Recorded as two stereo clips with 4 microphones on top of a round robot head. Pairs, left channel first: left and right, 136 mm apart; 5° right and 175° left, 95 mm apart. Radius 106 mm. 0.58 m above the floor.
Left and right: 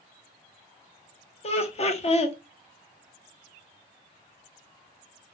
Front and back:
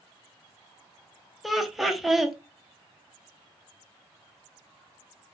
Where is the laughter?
85° left, 0.8 m.